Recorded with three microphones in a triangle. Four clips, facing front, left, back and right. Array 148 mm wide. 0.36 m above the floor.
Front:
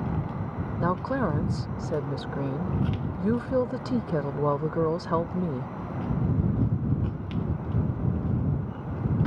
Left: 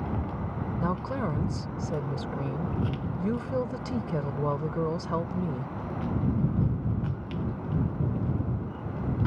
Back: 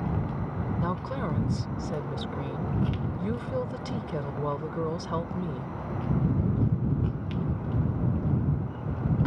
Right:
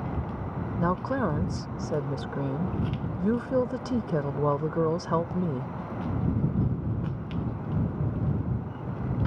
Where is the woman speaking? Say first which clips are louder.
Right 4 dB, front 7 dB; 45° right.